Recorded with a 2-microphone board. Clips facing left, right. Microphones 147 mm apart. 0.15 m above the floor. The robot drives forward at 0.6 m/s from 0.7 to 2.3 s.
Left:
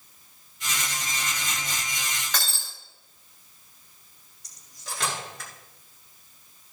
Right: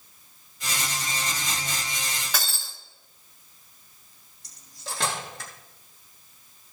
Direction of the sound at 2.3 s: 5° right (ahead or behind).